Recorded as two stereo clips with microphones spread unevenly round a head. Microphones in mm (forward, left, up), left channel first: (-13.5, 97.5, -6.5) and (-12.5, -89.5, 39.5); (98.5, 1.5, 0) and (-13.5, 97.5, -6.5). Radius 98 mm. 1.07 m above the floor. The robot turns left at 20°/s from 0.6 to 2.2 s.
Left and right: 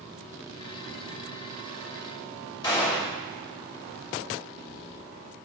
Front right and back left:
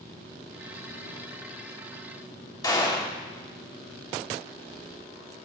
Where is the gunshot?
25° left, 3.5 m.